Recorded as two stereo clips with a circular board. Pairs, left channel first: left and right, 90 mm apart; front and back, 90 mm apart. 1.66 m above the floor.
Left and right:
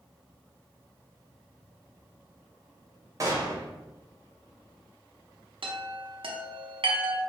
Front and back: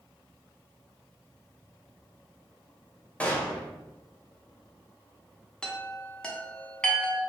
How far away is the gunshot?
About 0.6 m.